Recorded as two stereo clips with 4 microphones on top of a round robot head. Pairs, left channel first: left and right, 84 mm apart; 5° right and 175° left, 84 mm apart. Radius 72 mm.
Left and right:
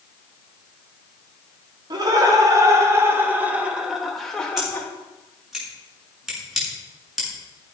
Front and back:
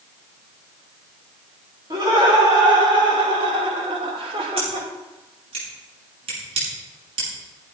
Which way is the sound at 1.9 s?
130° right.